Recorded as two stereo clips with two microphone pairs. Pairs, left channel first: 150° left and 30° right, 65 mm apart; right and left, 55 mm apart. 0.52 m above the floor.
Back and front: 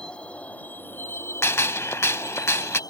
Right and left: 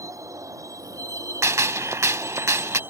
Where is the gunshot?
110° left.